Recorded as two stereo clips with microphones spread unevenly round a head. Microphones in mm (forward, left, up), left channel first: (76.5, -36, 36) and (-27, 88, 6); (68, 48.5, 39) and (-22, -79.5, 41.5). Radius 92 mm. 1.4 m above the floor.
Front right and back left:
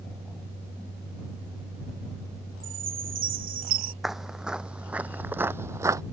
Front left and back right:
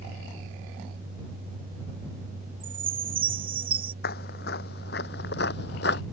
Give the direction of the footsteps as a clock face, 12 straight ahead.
11 o'clock.